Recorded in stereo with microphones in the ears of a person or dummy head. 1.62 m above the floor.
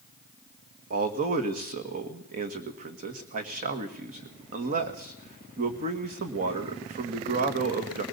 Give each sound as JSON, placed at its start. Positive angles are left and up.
{"t": 0.9, "sound": "a man speaking", "side_deg": -45, "distance_m": 2.0}